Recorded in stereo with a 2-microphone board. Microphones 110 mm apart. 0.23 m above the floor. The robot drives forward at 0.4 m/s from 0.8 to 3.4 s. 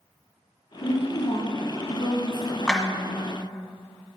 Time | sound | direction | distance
0.8 | a woman speaking | 50° left (ahead or behind) | 1.9 m
2.7 | a clap | 5° left (ahead or behind) | 1.7 m